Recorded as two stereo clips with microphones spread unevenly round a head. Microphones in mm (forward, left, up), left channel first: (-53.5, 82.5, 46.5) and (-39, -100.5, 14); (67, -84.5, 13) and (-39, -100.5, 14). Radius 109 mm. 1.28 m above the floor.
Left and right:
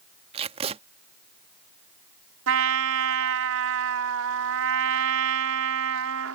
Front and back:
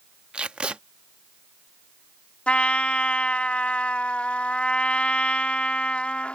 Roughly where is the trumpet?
Right.